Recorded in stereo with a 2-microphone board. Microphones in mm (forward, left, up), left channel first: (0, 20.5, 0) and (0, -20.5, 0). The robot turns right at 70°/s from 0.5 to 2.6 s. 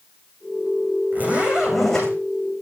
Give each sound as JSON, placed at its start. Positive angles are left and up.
{"t": 1.1, "sound": "a zipper", "azimuth_deg": -45, "distance_m": 8.5}